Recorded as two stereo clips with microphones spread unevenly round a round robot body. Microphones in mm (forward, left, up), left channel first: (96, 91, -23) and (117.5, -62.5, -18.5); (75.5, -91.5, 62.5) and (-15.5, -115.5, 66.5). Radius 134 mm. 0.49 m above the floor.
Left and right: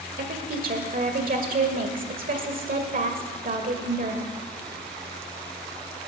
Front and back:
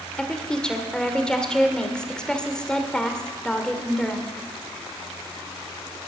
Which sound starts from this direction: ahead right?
A woman speaking, at 0.2 s.